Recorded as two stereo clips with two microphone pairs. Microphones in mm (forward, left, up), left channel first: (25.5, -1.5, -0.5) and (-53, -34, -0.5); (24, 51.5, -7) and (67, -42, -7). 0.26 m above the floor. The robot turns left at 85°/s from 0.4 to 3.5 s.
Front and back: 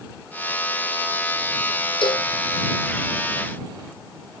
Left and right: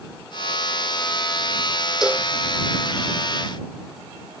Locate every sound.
2.0 s a cowbell: 20° left; by 2.3 s 5° right